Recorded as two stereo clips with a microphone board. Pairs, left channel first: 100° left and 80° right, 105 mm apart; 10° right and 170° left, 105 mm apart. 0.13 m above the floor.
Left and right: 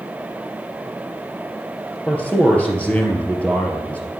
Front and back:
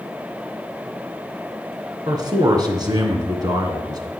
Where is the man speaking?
170° left, 2 m.